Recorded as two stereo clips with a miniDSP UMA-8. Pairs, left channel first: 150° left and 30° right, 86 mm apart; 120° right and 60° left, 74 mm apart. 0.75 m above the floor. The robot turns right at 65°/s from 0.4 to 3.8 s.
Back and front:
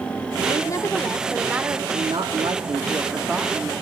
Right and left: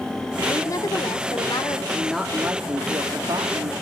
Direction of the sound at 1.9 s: 45° right.